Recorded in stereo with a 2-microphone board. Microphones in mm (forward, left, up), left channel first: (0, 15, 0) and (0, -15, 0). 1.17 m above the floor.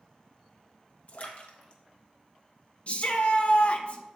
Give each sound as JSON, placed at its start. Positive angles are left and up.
{"t": 1.1, "sound": "a splash", "side_deg": 50, "distance_m": 1.1}
{"t": 2.9, "sound": "a shout", "side_deg": 45, "distance_m": 1.0}